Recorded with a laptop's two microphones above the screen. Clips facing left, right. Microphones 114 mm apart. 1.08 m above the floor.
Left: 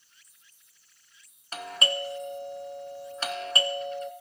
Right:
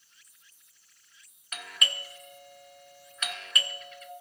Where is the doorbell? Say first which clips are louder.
Left 7 dB; 35° left (ahead or behind), 0.7 m.